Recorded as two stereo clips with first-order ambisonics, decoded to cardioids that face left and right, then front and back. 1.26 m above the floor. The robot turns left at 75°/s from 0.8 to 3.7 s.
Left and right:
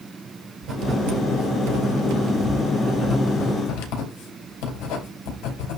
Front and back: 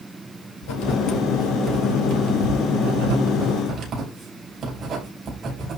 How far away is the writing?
About 5.5 m.